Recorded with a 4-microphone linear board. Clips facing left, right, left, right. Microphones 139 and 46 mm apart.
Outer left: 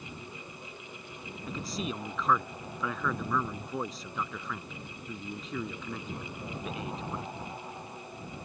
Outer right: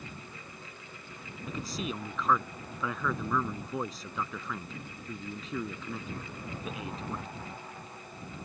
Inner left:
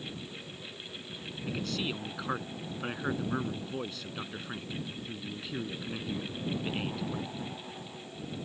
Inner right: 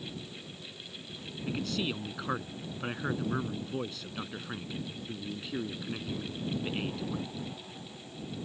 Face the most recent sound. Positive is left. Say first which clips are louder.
# even, inner right 1 dB
turn(degrees=0)  # may be behind; listen again after turning